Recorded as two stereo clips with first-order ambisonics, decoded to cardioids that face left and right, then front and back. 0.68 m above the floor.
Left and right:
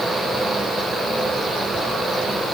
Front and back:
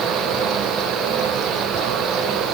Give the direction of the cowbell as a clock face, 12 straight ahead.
I don't hear a cowbell.